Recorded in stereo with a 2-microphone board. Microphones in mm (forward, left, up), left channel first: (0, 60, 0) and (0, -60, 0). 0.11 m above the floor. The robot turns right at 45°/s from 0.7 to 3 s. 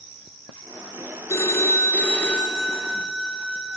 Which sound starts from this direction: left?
A phone ringing, at 1.3 s.